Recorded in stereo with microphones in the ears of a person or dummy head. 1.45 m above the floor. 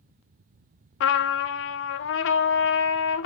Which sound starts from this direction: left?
A trumpet, at 1.0 s.